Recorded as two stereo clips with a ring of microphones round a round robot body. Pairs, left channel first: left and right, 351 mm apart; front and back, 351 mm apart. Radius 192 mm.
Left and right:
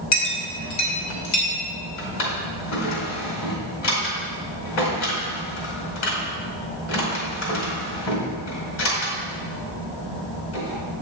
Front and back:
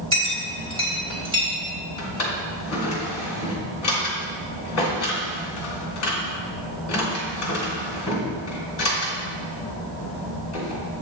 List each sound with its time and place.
0.1 s a clink: 100° left, 2 m
2.0 s a drawer: 55° left, 2 m